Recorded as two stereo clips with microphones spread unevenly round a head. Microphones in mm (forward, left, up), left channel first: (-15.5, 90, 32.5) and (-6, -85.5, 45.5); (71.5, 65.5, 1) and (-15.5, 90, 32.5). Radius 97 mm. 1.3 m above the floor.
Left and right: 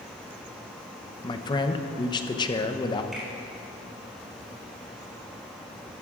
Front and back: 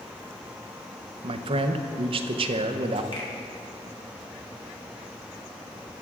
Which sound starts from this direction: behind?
A man speaking, at 1.2 s.